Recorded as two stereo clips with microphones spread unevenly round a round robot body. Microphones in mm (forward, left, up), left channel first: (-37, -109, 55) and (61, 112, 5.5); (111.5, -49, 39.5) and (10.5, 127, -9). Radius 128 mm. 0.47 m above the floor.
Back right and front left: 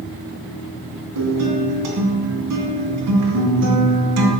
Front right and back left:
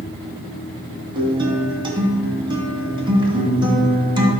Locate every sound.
1.1 s a guitar: 55° left, 2.5 m